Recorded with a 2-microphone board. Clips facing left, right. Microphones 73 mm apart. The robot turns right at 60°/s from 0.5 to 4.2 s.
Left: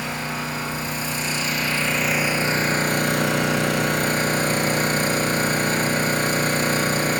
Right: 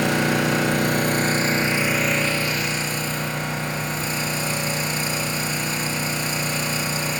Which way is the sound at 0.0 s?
95° right.